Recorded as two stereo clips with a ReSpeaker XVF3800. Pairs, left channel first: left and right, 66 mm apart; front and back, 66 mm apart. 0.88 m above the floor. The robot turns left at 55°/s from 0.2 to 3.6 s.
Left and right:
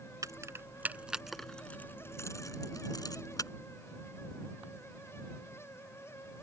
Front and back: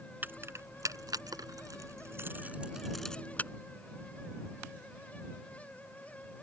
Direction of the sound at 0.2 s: 120° right.